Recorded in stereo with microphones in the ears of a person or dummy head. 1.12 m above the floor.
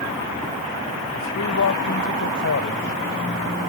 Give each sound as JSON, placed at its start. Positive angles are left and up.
{"t": 1.1, "sound": "a man speaking", "side_deg": 70}